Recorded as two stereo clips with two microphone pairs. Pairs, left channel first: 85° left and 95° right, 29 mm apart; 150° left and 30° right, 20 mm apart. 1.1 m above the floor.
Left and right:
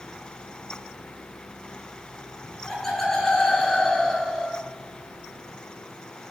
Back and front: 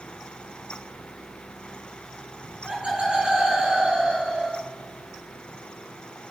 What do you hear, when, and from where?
2.4 s laughter: 5° left, 7.5 m; by 4.6 s 10° left, 6 m